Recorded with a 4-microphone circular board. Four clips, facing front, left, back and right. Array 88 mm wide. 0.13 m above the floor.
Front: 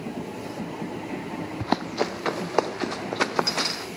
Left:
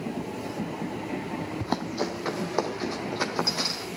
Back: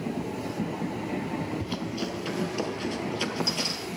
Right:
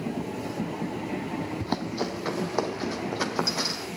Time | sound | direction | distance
1.6 | running footsteps | 10° left | 0.8 m